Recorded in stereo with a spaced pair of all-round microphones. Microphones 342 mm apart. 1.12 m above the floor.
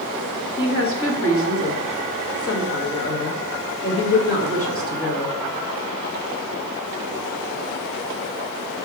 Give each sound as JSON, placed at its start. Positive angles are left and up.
{"t": 0.6, "sound": "a woman speaking", "side_deg": 40, "distance_m": 1.7}